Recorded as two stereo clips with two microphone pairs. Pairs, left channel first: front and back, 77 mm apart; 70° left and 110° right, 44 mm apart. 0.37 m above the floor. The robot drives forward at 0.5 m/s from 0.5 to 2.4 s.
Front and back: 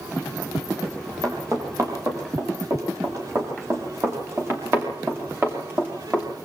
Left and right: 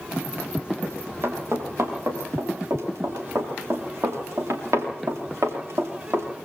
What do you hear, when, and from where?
0.8 s running footsteps: 135° right, 9.5 m; by 6.3 s 105° right, 7.5 m